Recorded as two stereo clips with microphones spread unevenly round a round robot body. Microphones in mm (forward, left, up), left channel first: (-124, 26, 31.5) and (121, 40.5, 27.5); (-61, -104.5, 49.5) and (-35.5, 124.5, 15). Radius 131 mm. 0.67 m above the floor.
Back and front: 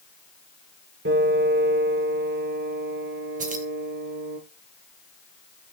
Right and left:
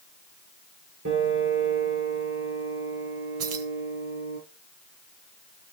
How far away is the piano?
About 6.5 m.